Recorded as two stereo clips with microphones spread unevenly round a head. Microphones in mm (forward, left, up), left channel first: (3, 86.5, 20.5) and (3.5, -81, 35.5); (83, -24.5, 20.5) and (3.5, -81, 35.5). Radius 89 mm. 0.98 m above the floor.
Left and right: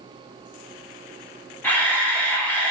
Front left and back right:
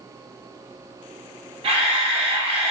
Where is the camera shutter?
170° left, 1.5 m.